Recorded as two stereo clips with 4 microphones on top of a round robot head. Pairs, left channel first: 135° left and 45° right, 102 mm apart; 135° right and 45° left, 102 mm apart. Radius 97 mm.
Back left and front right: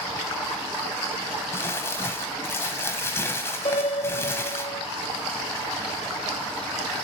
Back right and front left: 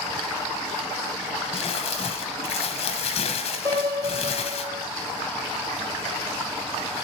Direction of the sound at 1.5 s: 160° right.